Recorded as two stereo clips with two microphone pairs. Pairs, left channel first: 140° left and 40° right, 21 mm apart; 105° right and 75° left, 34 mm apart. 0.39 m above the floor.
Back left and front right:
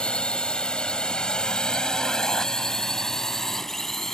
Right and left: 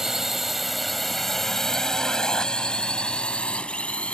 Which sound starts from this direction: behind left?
A drone, at 0.0 s.